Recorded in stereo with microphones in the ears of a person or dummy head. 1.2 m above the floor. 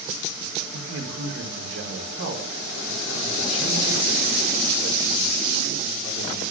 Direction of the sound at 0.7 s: 85° right.